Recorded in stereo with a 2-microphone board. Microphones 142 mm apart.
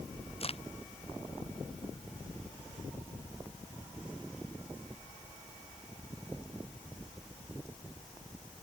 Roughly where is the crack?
Left.